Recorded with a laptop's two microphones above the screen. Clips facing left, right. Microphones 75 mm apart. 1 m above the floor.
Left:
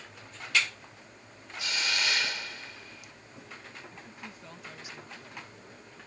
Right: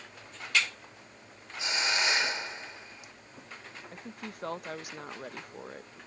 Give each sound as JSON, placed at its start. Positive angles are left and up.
{"t": 1.6, "sound": "a hiss", "side_deg": -25}
{"t": 3.9, "sound": "a woman speaking", "side_deg": -60}